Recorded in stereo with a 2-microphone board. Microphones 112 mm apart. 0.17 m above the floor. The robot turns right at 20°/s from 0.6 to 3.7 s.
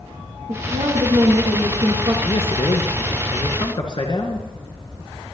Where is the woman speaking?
80° right, 4.5 m; by 2.1 s 50° right, 4.5 m.